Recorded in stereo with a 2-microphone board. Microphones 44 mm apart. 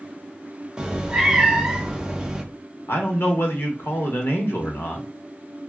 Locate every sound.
0.8 s a cat meowing: 20° right (ahead or behind), 0.6 m
2.9 s a man speaking: 70° left (ahead or behind), 1.0 m